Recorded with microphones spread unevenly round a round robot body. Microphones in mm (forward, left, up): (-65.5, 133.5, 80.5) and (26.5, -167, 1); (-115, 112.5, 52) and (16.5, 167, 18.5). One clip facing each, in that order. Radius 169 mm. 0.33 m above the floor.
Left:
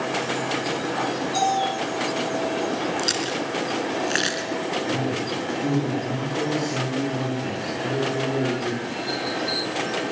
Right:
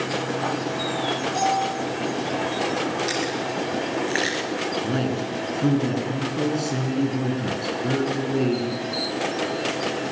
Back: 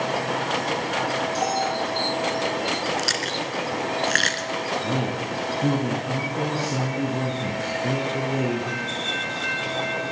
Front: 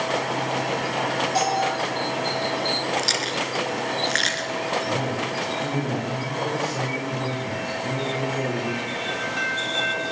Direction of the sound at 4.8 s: 120° right.